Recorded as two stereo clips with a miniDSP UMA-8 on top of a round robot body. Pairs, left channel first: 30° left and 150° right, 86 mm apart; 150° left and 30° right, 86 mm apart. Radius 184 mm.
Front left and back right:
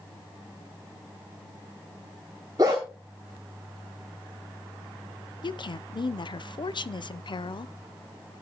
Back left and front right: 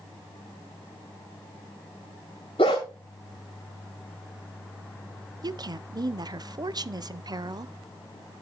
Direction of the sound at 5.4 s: 5° left.